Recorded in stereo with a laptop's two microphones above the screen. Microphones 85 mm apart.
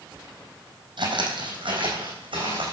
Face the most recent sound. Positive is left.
turn(degrees=-75)  # may be behind; listen again after turning